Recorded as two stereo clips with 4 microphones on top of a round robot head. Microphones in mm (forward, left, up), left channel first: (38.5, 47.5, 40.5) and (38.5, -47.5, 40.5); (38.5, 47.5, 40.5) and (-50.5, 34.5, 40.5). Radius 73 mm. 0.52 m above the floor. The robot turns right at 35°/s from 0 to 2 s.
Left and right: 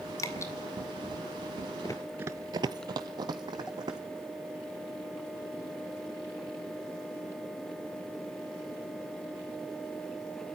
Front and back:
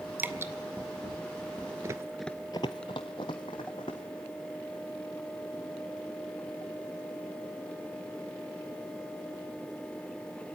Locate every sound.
0.2 s dripping: 130° left, 1.5 m; by 0.5 s 140° left, 1.5 m
1.8 s running footsteps: 140° left, 0.6 m; by 4.0 s 45° right, 2.5 m